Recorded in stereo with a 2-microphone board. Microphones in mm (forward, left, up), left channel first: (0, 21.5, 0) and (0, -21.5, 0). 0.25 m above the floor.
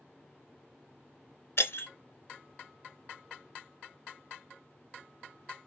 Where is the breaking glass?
70° left (ahead or behind), 0.9 m.